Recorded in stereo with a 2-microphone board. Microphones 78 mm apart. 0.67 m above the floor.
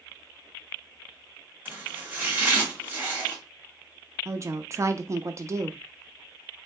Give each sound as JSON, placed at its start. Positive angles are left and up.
{"t": 1.6, "sound": "chopping", "side_deg": -25, "distance_m": 1.9}
{"t": 4.2, "sound": "a woman speaking", "side_deg": -40, "distance_m": 0.6}